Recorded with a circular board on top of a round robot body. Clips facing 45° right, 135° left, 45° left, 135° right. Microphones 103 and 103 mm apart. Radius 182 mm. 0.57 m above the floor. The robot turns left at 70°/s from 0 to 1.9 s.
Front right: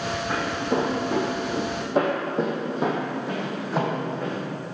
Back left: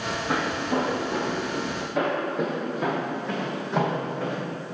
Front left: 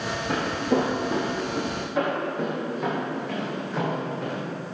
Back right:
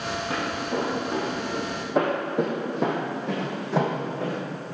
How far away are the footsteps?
About 1.9 m.